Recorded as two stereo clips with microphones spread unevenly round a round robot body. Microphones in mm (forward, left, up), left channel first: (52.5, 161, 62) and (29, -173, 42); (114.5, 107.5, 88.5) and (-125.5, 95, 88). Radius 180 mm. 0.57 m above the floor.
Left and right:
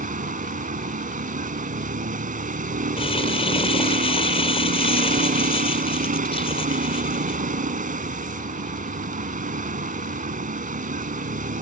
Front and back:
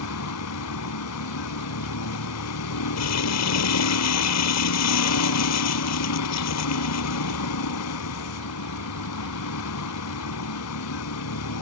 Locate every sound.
0.0 s a vehicle: 25° right
3.0 s crumpling: 10° left